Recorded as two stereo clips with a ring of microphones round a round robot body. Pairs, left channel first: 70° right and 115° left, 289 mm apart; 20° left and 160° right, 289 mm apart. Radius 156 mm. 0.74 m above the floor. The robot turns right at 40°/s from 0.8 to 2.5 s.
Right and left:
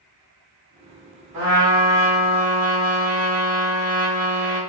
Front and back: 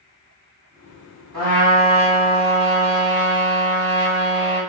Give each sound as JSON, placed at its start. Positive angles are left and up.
{"t": 1.3, "sound": "a trumpet", "azimuth_deg": 165, "distance_m": 1.6}